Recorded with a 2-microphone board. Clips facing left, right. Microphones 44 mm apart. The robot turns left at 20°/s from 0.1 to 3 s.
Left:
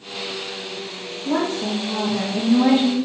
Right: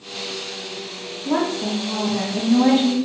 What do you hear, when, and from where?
1.2 s a woman speaking: 145° right, 1.1 m; by 3.0 s 175° right, 1.1 m